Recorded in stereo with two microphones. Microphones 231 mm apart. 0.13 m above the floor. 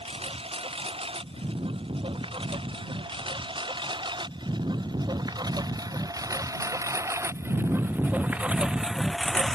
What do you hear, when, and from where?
0.0 s a lawn mower: 25° right (ahead or behind); by 9.6 s 5° left (ahead or behind)